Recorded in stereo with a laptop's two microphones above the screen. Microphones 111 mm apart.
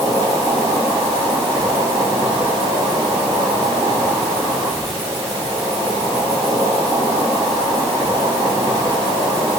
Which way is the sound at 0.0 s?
35° right (ahead or behind).